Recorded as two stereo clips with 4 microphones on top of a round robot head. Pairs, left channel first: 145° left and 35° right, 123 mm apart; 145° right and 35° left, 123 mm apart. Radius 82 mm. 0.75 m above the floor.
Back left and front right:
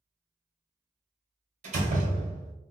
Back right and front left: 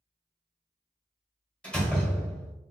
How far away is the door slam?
About 1.6 m.